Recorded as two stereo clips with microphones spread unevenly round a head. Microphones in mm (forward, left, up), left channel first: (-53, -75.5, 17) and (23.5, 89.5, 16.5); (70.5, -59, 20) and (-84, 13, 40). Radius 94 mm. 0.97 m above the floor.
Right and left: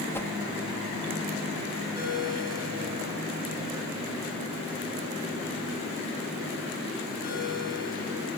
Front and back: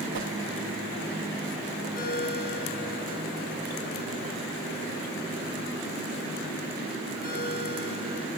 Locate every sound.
0.1 s a whoosh: 165° left, 1.3 m
1.9 s a ringtone: 65° right, 9 m